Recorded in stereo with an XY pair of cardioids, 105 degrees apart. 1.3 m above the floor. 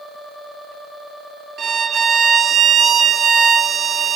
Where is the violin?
50° right, 0.5 m.